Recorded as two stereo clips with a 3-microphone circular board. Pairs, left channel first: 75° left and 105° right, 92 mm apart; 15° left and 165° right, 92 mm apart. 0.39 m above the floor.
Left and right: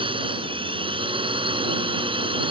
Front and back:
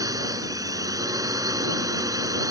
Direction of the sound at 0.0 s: 115° right.